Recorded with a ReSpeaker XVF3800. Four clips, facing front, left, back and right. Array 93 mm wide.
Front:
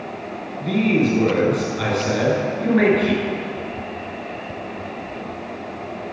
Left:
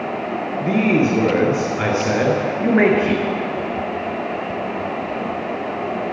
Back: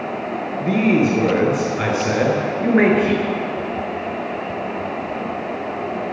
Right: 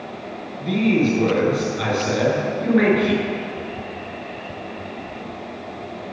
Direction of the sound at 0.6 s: 130° left.